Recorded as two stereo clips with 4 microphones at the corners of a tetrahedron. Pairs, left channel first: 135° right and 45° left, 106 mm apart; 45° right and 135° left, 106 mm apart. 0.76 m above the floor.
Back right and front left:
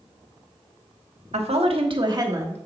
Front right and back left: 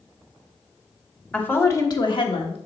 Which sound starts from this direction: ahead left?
A woman speaking, at 1.3 s.